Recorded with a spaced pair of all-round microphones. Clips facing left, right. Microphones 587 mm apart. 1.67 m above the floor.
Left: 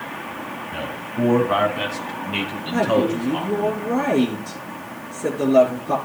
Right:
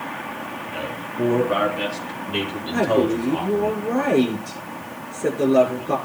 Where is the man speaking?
70° left (ahead or behind), 2.5 m; by 3.7 s 85° left, 6 m.